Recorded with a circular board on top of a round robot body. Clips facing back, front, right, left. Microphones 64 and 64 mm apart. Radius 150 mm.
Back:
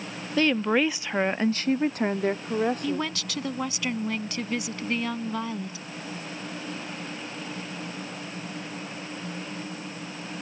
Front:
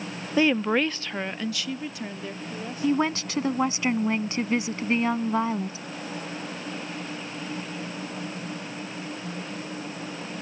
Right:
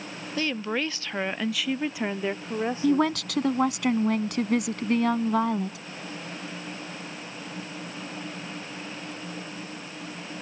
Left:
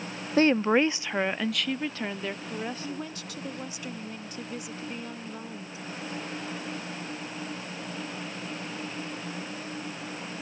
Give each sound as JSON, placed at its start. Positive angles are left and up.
{"t": 0.4, "sound": "a woman speaking", "azimuth_deg": 65}
{"t": 2.8, "sound": "a woman speaking", "azimuth_deg": -60}